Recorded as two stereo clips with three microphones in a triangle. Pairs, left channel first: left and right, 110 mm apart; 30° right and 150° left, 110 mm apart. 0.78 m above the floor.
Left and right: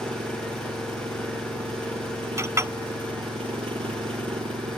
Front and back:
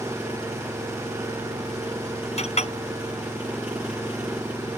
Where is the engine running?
130° right.